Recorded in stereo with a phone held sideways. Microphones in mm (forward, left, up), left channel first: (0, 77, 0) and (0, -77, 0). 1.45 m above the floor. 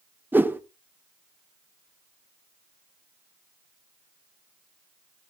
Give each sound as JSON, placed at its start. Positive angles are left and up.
{"t": 0.3, "sound": "a whoosh", "side_deg": -15, "distance_m": 0.7}